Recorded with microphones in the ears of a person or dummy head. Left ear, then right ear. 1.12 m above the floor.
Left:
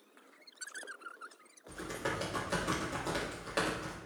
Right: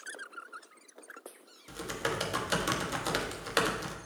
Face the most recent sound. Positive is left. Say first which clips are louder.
# right 3 dB
turn(degrees=-40)  # may be behind; listen again after turning